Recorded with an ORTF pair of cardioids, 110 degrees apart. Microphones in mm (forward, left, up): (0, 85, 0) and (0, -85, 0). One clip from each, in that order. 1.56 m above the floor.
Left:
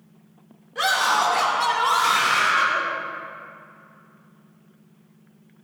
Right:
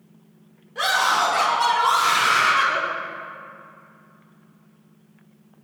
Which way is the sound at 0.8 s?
15° left.